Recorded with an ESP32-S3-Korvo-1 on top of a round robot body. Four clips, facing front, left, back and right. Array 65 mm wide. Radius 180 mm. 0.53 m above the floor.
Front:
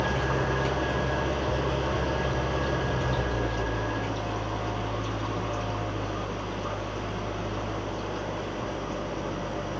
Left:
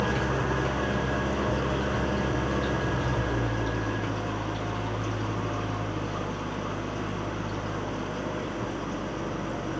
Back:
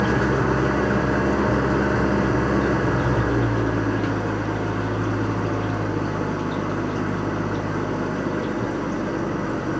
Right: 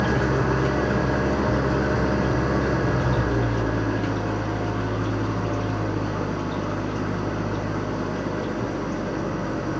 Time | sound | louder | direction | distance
0.0 | an engine running | right 5 dB, back 7 dB | 160° right | 2.0 m